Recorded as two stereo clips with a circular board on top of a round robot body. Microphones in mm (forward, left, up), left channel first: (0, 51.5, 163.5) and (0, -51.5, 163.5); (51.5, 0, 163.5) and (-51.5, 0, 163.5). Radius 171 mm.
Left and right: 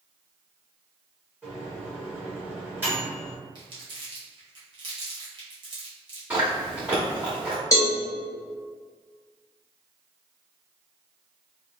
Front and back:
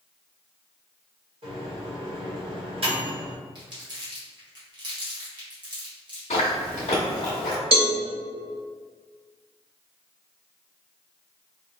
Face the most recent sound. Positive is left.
turn(degrees=150)